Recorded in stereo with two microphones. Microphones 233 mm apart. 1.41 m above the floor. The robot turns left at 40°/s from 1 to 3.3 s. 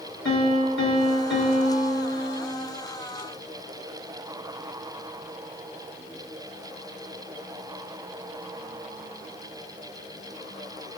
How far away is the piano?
About 2 m.